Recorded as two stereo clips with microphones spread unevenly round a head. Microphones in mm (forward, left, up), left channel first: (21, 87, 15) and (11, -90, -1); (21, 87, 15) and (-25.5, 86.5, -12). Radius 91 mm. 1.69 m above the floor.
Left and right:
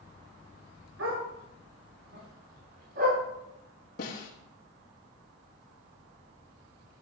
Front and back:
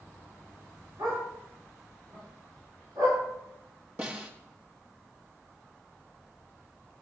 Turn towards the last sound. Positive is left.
turn(degrees=125)